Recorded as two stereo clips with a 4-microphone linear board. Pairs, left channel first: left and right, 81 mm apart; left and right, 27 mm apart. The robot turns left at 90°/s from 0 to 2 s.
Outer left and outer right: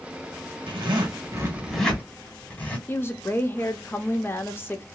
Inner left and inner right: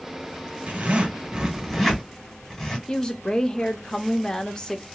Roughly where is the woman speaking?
Left.